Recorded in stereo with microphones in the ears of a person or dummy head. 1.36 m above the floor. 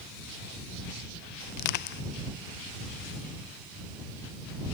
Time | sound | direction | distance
1.5 | crushing | 50° left (ahead or behind) | ?